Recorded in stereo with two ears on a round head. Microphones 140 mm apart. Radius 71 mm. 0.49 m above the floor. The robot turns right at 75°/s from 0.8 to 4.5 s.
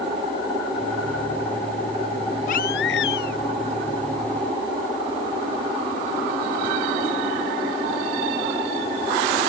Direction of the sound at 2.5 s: 50° left.